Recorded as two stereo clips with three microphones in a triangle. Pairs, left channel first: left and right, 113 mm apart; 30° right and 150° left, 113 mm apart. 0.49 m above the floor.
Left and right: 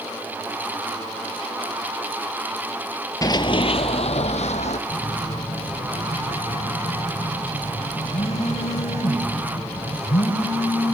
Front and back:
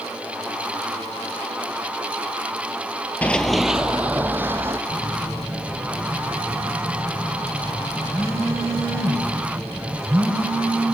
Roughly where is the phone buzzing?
Left.